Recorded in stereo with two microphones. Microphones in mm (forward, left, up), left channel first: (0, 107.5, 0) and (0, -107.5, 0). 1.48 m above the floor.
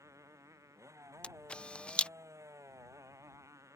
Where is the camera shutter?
5° left (ahead or behind).